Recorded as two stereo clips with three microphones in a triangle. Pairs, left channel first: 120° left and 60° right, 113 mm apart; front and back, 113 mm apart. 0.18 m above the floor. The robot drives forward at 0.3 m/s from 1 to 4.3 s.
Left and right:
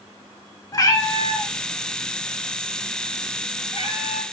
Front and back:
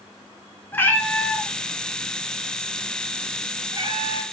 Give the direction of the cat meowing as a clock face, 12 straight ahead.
10 o'clock.